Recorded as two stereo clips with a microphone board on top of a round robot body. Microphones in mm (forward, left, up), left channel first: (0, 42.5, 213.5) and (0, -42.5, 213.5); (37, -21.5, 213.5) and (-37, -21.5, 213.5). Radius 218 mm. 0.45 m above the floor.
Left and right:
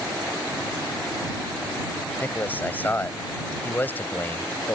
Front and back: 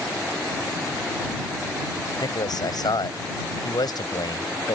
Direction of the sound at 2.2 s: 20° left.